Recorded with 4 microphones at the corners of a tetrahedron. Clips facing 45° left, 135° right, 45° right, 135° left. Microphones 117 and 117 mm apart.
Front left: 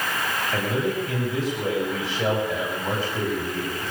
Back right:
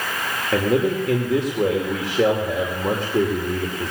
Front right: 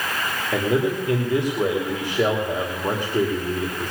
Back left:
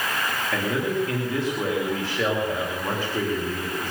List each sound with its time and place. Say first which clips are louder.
0.5 s a man speaking: back right 8 dB, front right 5 dB; 120° right, 2.5 m